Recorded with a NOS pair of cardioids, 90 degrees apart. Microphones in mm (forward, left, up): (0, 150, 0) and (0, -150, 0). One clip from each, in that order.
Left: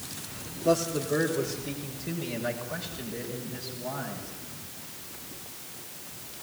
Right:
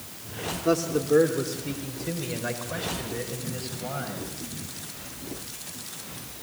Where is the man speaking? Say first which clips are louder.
Right 2 dB; 25° right, 4 m; by 4.3 s 30° right, 9 m.